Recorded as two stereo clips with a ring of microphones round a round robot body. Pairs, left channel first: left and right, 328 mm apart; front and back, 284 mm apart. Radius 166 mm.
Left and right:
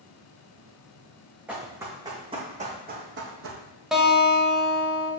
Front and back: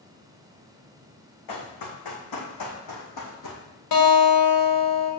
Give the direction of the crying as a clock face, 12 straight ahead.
I don't hear crying.